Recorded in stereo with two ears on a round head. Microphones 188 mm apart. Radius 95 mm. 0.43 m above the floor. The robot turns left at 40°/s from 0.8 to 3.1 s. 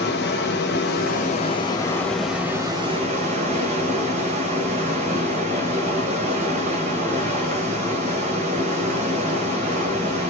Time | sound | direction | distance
0.0 | running water | 60° left | 1.6 m